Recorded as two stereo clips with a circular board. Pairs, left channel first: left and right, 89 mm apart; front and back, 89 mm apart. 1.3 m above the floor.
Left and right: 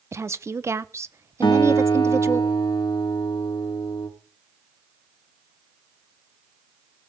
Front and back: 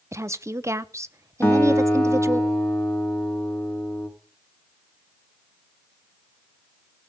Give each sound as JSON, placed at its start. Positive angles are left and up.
{"t": 0.1, "sound": "a woman speaking", "azimuth_deg": -135, "distance_m": 0.6}
{"t": 1.4, "sound": "a guitar", "azimuth_deg": 60, "distance_m": 3.0}